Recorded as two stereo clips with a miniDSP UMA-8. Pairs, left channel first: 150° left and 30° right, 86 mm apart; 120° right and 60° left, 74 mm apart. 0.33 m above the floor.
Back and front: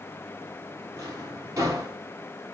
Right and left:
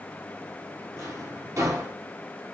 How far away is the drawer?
About 3.5 m.